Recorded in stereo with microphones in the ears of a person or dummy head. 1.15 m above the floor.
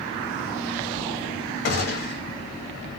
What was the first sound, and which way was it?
A gunshot, 55° left (ahead or behind).